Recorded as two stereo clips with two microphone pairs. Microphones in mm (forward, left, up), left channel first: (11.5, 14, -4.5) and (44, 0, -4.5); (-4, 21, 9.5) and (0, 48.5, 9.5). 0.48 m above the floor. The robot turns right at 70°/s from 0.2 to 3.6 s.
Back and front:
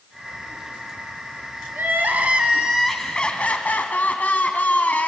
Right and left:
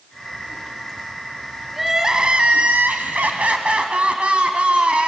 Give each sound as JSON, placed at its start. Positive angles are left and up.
{"t": 1.7, "sound": "crying", "azimuth_deg": -5, "distance_m": 2.0}